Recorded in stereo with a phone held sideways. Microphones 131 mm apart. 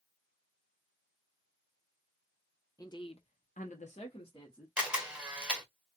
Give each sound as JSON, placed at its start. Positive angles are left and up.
{"t": 2.8, "sound": "a woman speaking", "side_deg": 25, "distance_m": 1.1}
{"t": 4.8, "sound": "a camera shutter", "side_deg": -10, "distance_m": 1.1}